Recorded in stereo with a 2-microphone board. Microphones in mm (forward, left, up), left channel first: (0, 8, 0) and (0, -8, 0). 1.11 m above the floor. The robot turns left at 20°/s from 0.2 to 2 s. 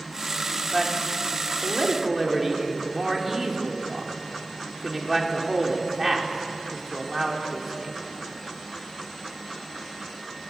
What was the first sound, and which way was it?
A man speaking, 15° left (ahead or behind).